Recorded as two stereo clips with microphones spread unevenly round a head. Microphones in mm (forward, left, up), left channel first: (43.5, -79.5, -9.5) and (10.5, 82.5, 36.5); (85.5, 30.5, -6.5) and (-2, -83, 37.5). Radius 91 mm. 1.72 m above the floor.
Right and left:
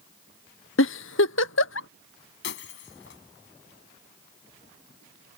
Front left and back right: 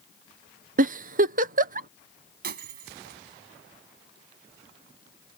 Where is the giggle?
115° right.